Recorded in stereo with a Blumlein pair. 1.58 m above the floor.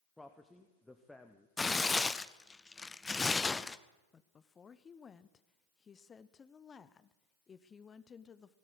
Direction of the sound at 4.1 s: 20° left.